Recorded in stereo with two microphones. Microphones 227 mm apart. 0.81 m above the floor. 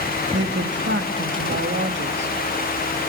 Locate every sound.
0.3 s a woman speaking: 55° right (ahead or behind), 1.3 m